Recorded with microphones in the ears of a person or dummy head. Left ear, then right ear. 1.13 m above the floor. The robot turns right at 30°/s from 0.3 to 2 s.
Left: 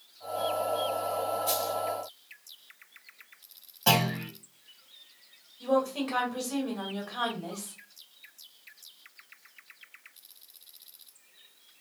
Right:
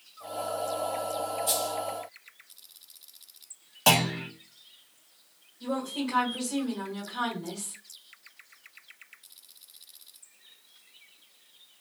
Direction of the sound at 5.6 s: 45° left (ahead or behind).